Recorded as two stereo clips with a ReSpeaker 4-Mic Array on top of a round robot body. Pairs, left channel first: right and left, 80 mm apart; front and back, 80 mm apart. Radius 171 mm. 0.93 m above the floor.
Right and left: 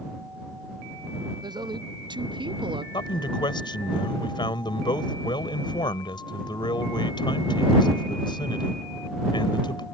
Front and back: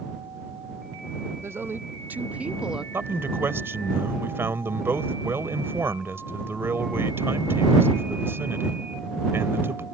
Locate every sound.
1.4 s a woman speaking: 120° left; by 2.8 s 95° left
2.9 s a man speaking: 120° right